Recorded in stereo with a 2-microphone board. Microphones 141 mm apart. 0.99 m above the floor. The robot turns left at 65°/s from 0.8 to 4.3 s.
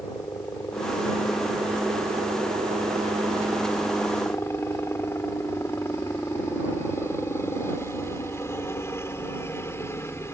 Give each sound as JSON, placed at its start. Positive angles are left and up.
{"t": 0.0, "sound": "a helicopter", "azimuth_deg": 30}